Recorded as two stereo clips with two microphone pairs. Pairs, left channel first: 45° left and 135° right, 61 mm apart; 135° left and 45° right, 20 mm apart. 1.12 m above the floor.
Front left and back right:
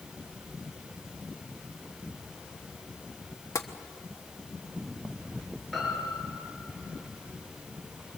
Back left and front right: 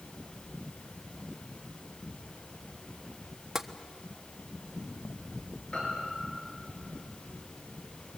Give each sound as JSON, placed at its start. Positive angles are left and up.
{"t": 3.5, "sound": "tapping", "azimuth_deg": 25, "distance_m": 1.2}
{"t": 5.7, "sound": "a piano", "azimuth_deg": 135, "distance_m": 6.5}